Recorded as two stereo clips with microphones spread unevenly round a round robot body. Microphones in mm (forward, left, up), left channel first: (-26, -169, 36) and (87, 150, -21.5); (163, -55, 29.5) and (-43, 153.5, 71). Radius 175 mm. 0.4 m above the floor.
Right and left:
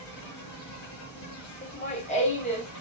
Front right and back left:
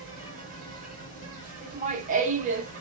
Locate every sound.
0.0 s an insect: 155° right, 1.5 m
1.6 s laughter: 175° right, 0.9 m